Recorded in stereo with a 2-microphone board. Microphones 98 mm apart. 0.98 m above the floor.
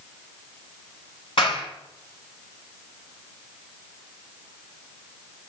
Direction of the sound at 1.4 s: 65° left (ahead or behind).